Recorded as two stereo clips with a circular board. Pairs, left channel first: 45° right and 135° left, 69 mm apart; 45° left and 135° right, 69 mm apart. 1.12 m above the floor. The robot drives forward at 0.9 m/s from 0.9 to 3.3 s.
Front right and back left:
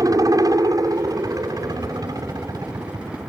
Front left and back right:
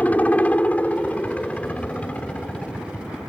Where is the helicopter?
110° left; by 3.3 s 115° left.